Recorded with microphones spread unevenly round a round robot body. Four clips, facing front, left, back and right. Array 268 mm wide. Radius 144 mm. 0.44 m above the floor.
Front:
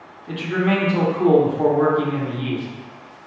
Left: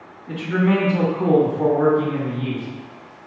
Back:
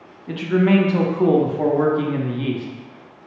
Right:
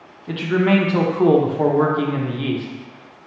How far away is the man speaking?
About 0.7 m.